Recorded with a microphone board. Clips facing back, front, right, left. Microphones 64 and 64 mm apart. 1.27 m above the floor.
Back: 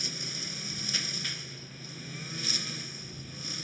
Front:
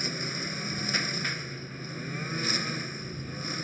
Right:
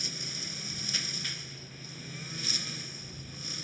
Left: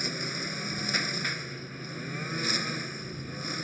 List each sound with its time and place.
0.0 s a lawn mower: 50° left